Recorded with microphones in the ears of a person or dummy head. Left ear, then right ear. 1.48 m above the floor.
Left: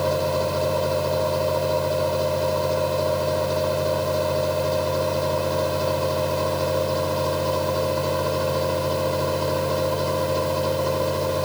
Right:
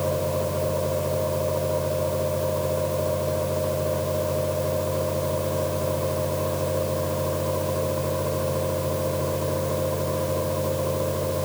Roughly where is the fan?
Left.